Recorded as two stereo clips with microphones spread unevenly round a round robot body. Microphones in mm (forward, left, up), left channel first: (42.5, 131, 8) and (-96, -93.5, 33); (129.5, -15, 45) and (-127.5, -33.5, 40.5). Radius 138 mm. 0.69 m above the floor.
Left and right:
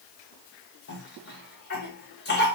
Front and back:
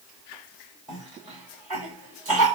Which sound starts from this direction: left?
A cough, at 0.9 s.